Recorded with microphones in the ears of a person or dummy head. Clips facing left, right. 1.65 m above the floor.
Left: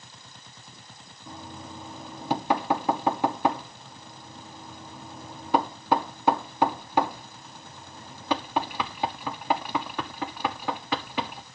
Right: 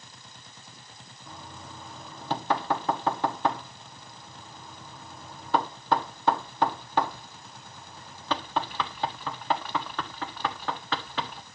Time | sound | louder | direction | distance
1.3 | knocking | left 4 dB | 10° left (ahead or behind) | 0.9 m